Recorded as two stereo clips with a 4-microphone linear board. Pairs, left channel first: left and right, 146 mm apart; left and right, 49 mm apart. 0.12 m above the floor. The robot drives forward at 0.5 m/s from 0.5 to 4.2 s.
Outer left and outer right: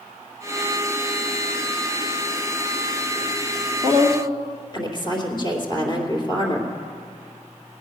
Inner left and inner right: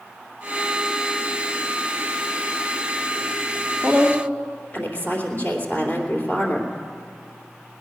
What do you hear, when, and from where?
3.8 s a woman speaking: 35° left (ahead or behind), 2.5 m